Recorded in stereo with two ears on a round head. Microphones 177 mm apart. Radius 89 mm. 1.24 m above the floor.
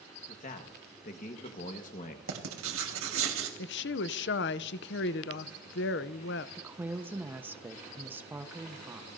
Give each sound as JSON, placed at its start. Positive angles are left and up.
{"t": 0.3, "sound": "a man speaking", "side_deg": 45, "distance_m": 1.3}
{"t": 2.3, "sound": "writing", "side_deg": -75, "distance_m": 2.5}
{"t": 3.6, "sound": "a woman speaking", "side_deg": 55, "distance_m": 0.6}
{"t": 6.6, "sound": "a woman speaking", "side_deg": -10, "distance_m": 1.0}